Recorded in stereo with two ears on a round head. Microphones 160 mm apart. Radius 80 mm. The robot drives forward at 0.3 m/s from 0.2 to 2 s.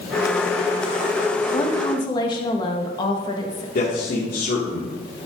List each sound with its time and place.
1.5 s a woman speaking: 30° left (ahead or behind), 1.2 m; by 3.6 s 25° left (ahead or behind), 1.3 m
3.8 s a man speaking: 60° left (ahead or behind), 2 m